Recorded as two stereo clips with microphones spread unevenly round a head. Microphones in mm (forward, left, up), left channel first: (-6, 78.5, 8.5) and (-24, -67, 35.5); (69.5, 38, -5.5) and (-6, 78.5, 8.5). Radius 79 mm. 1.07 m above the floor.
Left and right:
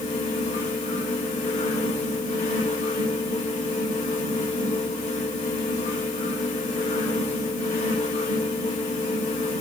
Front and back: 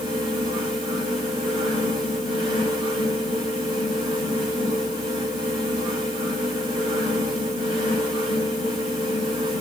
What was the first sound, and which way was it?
A fan, 130° left.